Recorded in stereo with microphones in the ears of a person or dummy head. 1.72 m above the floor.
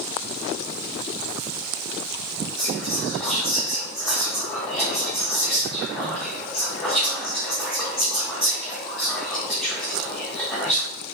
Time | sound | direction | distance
2.6 | whispering | 15° left (ahead or behind) | 0.6 m